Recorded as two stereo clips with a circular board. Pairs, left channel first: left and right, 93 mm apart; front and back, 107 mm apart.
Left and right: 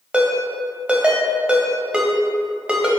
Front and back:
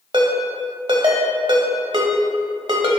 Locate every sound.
0.1 s a ringtone: 165° right, 1.0 m